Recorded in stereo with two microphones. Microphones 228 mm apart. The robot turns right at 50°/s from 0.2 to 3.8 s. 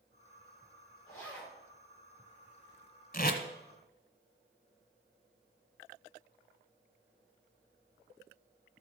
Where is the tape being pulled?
40° left (ahead or behind), 1.2 m; by 3.4 s 50° left (ahead or behind), 1.2 m.